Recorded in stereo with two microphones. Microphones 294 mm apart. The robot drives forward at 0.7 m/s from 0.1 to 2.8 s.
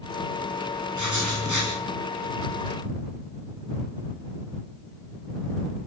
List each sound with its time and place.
0.9 s writing: 75° right (ahead or behind), 9 m; by 1.7 s 80° right, 9 m